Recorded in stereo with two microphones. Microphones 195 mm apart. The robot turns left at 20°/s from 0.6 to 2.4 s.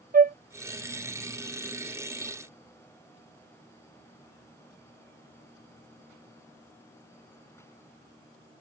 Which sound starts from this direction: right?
A flute, at 0.1 s.